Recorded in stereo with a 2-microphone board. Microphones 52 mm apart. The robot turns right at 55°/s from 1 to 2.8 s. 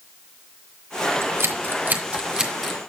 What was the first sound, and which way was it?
Scissors, 60° right (ahead or behind).